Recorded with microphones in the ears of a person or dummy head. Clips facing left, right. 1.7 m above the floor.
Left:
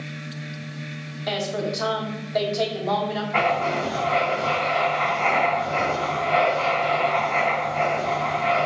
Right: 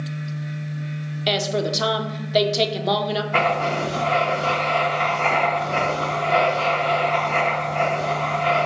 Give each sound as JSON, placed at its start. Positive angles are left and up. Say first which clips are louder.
{"t": 0.0, "sound": "a fan", "louder": "right 4 dB", "side_deg": 80, "distance_m": 0.8}
{"t": 1.3, "sound": "a woman speaking", "louder": "right 3 dB", "side_deg": -40, "distance_m": 0.6}
{"t": 3.3, "sound": "writing", "louder": "even", "side_deg": -45, "distance_m": 1.2}